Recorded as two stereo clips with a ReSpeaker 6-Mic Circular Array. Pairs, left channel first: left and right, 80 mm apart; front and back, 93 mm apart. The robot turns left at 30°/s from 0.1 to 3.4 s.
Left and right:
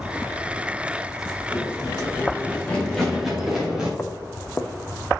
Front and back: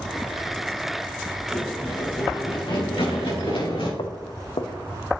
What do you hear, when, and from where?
1.5 s running footsteps: 65° left, 4 m; by 3.9 s 10° right, 6.5 m
4.0 s footsteps: 20° left, 1.1 m